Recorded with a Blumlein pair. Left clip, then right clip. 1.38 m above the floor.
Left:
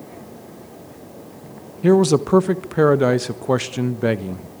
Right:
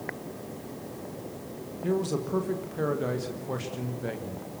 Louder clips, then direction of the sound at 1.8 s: Left 14 dB; 35° left.